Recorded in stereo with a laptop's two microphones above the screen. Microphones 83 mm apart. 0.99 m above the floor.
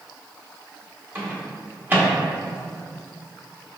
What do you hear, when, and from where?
1.1 s a microwave: 25° right (ahead or behind), 1.0 m